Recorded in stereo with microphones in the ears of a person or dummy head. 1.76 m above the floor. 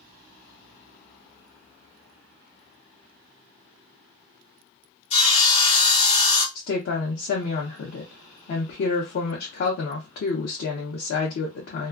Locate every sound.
5.1 s sawing: 40° left (ahead or behind), 1.3 m
6.5 s a woman speaking: 50° left (ahead or behind), 0.6 m